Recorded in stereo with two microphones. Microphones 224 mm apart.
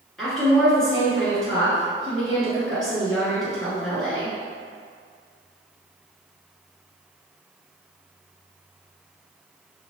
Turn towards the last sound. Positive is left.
turn(degrees=0)  # may be behind; listen again after turning